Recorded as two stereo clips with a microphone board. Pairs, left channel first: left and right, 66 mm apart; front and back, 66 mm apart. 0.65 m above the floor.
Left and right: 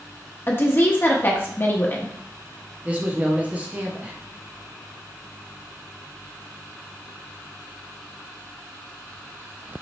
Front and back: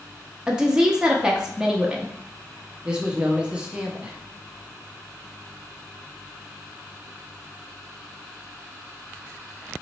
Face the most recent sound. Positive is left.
turn(degrees=-125)